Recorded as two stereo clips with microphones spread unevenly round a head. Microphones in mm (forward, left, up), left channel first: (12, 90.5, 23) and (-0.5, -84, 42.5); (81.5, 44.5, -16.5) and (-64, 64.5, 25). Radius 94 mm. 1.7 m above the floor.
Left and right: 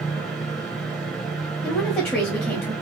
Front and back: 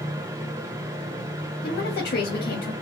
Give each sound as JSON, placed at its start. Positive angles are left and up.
{"t": 0.0, "sound": "a fan", "azimuth_deg": 180, "distance_m": 1.0}
{"t": 1.6, "sound": "a woman speaking", "azimuth_deg": 5, "distance_m": 1.2}